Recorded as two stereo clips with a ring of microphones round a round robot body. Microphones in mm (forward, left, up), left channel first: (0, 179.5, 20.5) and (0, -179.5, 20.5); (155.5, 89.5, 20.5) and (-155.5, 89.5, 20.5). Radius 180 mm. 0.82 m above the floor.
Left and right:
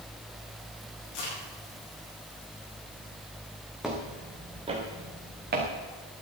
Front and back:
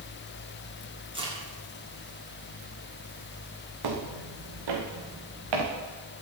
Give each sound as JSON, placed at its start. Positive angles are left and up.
{"t": 1.1, "sound": "a crack", "azimuth_deg": 105, "distance_m": 8.0}
{"t": 3.8, "sound": "footsteps", "azimuth_deg": 180, "distance_m": 2.5}